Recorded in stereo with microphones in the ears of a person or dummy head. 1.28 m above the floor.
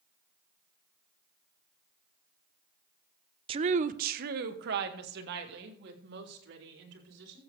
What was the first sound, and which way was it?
A woman speaking, 30° right (ahead or behind).